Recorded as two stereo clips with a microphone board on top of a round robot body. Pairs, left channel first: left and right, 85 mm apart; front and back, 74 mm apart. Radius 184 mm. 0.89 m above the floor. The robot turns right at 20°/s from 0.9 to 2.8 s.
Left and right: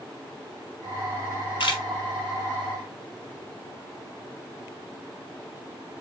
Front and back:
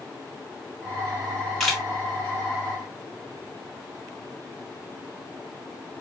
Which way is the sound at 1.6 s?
85° left.